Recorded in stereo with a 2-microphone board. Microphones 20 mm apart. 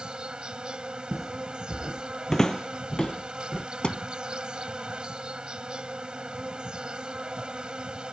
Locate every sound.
0.0 s an insect: 55° right (ahead or behind)
1.1 s footsteps: centre (ahead or behind); by 3.6 s 45° left (ahead or behind)
3.8 s a thud: 55° left (ahead or behind)